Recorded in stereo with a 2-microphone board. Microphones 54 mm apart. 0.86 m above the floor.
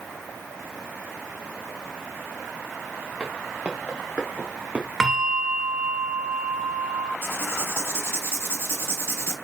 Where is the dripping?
No dripping in this recording.